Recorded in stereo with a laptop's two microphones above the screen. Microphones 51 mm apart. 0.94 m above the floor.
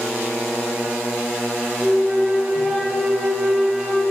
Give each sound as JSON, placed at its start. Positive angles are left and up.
{"t": 1.8, "sound": "a flute", "side_deg": 0, "distance_m": 3.5}